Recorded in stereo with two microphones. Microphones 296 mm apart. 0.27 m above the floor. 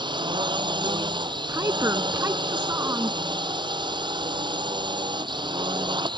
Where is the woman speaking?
10° right (ahead or behind).